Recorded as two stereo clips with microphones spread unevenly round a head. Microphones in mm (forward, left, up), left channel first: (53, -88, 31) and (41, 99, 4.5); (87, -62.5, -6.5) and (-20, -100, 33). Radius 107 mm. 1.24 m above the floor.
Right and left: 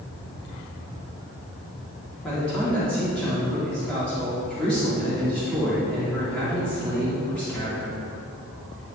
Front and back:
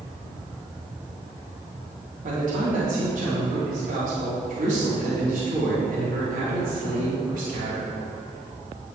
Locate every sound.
2.2 s a man speaking: 175° right, 2.5 m